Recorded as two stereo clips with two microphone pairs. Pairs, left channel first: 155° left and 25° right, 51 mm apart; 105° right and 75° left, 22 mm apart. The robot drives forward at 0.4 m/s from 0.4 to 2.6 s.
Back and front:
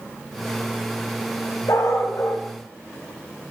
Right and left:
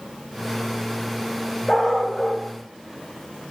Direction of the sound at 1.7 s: 170° left.